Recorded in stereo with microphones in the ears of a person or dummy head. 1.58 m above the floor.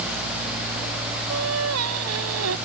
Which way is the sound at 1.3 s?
80° right.